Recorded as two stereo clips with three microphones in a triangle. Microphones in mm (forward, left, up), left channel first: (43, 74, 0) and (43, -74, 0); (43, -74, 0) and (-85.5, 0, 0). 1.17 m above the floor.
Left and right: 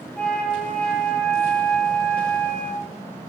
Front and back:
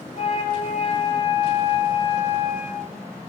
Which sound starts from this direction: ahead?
A flute, at 0.1 s.